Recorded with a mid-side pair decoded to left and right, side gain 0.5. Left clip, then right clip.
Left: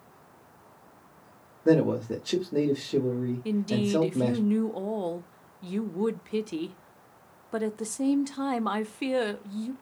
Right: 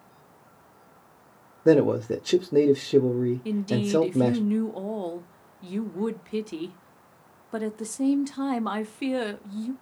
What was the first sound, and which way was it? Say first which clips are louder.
A man speaking: right 4 dB; 35° right.